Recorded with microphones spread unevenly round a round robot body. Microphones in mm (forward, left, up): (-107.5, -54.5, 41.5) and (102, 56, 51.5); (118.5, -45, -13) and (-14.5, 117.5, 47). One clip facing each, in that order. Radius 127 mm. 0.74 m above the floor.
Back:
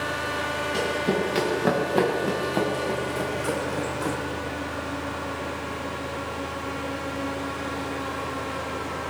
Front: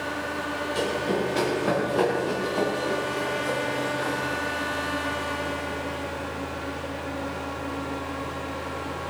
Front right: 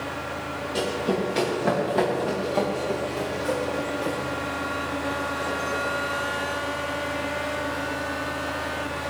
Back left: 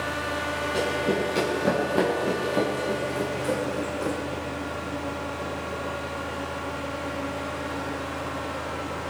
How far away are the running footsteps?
About 6 m.